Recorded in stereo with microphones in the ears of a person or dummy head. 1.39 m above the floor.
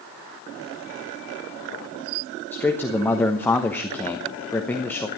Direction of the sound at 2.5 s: 10° left (ahead or behind).